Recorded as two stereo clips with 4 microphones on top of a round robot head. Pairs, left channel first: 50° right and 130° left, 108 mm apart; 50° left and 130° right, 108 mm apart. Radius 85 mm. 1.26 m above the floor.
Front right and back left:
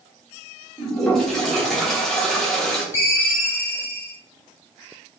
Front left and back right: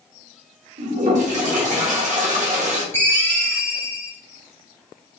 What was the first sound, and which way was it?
A toilet flushing, 135° right.